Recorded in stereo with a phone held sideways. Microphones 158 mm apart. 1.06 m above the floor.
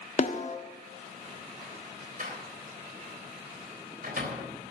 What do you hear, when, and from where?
0.2 s a snare drum: 50° left (ahead or behind), 1.2 m
2.2 s a door slam: 65° right (ahead or behind), 3.5 m